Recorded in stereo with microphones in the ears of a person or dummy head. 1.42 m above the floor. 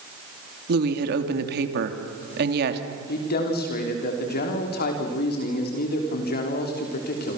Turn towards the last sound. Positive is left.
turn(degrees=50)  # may be behind; listen again after turning